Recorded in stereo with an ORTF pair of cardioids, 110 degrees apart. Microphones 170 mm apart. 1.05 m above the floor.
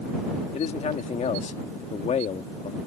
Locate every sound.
0.5 s a man speaking: 40° left